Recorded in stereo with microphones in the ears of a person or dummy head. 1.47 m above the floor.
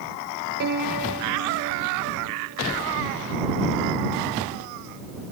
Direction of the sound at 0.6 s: 55° right (ahead or behind).